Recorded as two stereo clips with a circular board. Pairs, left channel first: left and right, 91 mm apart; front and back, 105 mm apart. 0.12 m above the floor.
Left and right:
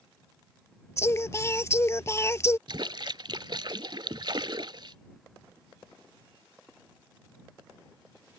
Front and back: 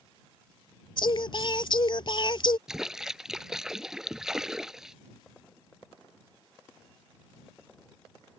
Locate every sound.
1.0 s singing: 35° left
2.7 s a splash: 95° right